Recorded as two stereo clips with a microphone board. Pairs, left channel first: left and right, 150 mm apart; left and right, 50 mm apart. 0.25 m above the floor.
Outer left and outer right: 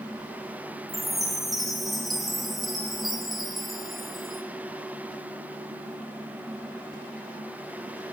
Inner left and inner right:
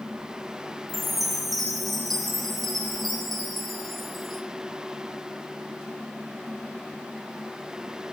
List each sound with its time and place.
0.9 s a chime: centre (ahead or behind), 0.7 m